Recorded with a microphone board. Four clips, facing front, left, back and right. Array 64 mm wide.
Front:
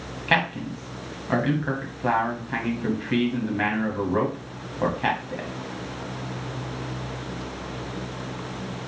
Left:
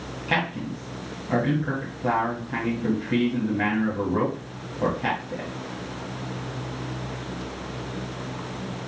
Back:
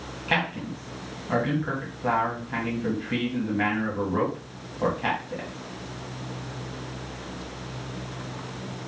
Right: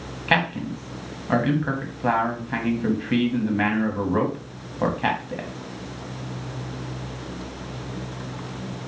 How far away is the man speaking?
About 1.8 m.